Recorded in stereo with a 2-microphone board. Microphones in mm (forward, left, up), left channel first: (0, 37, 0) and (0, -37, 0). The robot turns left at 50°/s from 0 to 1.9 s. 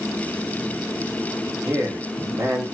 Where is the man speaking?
35° right (ahead or behind), 0.8 m; by 2.6 s 40° right (ahead or behind), 0.8 m.